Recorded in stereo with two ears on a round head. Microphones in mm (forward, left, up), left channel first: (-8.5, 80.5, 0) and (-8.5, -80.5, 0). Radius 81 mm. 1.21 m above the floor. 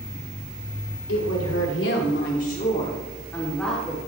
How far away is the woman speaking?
About 3.5 m.